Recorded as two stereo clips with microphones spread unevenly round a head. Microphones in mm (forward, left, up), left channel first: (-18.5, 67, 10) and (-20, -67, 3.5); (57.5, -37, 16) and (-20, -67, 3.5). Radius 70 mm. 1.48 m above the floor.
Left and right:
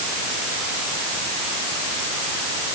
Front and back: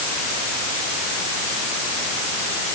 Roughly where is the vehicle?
No vehicle in this recording.